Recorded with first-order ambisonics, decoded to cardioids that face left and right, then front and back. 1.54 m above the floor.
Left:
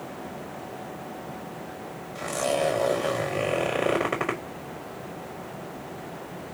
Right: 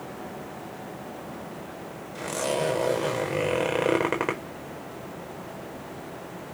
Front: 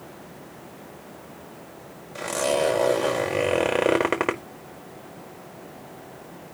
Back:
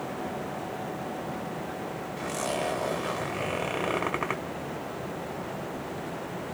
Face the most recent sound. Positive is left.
turn(degrees=-20)